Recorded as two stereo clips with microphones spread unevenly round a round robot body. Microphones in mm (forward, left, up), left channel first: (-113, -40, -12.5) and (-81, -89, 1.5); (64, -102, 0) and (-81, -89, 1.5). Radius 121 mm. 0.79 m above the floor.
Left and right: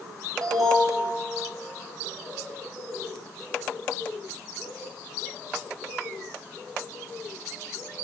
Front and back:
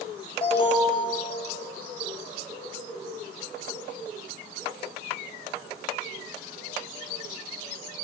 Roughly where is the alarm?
Ahead right.